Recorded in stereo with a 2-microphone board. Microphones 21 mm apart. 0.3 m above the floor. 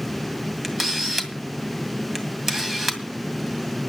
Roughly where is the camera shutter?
Centre.